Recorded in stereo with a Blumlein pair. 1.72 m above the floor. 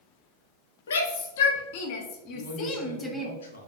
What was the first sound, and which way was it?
A shout, 65° left.